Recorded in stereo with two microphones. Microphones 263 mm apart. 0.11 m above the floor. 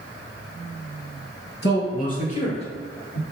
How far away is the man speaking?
About 1.6 m.